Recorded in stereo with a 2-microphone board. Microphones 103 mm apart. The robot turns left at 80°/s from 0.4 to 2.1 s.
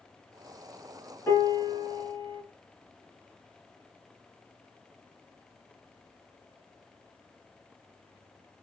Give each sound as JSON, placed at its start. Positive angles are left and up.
{"t": 1.3, "sound": "a piano", "azimuth_deg": 135, "distance_m": 1.8}